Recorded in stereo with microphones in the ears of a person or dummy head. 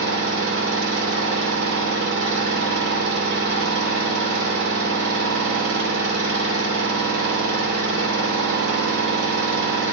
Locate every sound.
0.0 s an engine running: 75° right (ahead or behind), 2.5 m